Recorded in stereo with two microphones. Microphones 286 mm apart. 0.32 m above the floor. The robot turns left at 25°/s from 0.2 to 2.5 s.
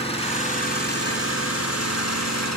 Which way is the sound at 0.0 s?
160° left.